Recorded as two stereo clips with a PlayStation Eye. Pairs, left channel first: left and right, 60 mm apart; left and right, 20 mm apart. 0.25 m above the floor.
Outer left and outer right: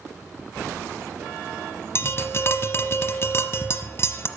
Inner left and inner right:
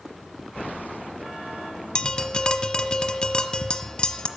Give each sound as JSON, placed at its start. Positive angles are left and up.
{"t": 1.9, "sound": "tapping", "side_deg": 50, "distance_m": 0.9}